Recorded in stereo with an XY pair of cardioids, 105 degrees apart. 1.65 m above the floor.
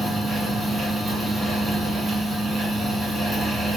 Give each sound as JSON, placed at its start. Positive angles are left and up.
{"t": 0.0, "sound": "a fan", "azimuth_deg": -10, "distance_m": 1.4}